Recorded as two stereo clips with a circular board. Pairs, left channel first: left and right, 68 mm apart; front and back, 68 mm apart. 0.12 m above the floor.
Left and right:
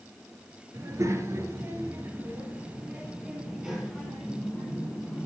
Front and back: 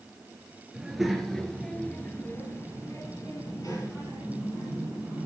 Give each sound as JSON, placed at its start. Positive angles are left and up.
{"t": 0.7, "sound": "a child speaking", "azimuth_deg": -100, "distance_m": 1.7}